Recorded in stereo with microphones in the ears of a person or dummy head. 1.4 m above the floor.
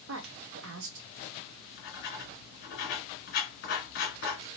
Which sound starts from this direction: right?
A woman speaking, at 0.1 s.